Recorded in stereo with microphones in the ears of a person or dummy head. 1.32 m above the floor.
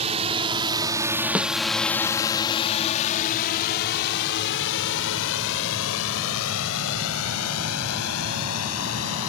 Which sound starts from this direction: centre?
A snare drum, at 1.4 s.